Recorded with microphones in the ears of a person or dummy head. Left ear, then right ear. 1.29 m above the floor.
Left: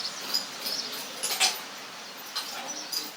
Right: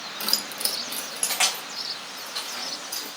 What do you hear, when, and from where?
0.2 s keys jangling: 60° right (ahead or behind), 0.6 m; by 3.1 s 10° right (ahead or behind), 2 m